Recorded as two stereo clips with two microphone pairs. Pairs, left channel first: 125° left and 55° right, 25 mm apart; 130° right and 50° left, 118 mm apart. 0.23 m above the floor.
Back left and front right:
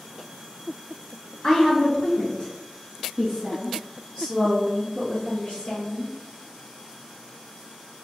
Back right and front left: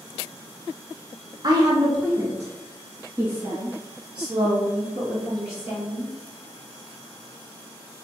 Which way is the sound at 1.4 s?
85° left.